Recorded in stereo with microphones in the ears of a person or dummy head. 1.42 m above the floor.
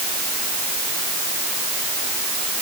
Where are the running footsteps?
I don't hear running footsteps.